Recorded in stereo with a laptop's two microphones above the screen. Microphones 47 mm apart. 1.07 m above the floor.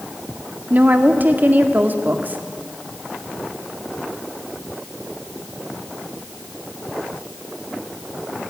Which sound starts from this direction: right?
A woman speaking, at 0.7 s.